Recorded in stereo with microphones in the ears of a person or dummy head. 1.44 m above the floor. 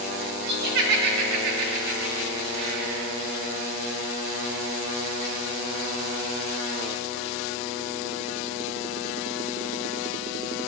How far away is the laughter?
About 3.5 m.